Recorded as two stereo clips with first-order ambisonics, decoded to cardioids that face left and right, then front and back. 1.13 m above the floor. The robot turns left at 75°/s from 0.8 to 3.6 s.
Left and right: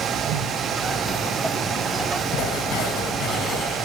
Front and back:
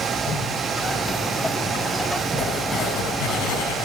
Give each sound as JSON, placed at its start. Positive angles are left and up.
{"t": 0.2, "sound": "a whoosh", "azimuth_deg": -50, "distance_m": 7.5}
{"t": 2.3, "sound": "writing", "azimuth_deg": 105, "distance_m": 6.5}